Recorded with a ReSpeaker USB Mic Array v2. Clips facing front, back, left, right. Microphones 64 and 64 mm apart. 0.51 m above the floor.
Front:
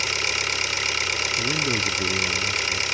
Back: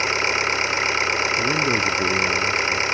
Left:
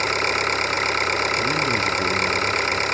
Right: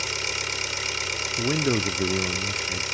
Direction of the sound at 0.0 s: 125° left.